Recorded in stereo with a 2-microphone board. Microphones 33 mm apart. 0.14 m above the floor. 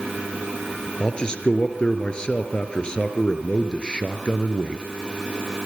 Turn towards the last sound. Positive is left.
turn(degrees=25)  # may be behind; listen again after turning